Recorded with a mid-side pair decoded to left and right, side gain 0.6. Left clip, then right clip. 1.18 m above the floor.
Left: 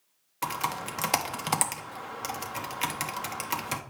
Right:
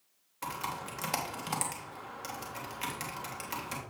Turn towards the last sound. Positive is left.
turn(degrees=40)